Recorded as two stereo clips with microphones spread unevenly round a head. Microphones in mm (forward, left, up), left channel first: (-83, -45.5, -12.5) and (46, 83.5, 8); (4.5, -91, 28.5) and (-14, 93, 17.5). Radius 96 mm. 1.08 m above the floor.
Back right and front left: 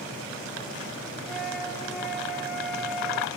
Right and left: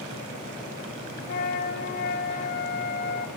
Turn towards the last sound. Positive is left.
turn(degrees=-45)